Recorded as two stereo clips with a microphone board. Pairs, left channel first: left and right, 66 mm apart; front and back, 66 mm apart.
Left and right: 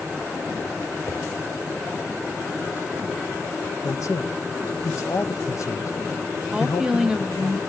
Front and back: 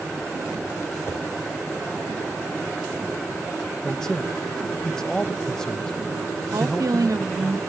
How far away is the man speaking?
About 1.2 m.